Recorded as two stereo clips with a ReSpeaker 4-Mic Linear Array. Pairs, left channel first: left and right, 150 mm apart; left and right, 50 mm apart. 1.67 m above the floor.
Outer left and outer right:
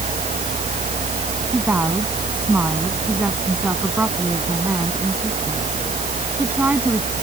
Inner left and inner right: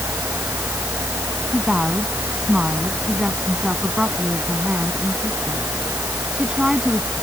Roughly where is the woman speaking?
Centre.